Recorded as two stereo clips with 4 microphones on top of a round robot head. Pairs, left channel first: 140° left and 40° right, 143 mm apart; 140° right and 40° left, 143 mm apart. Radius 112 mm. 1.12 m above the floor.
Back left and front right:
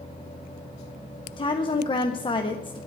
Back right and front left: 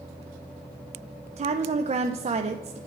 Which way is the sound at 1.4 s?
85° left.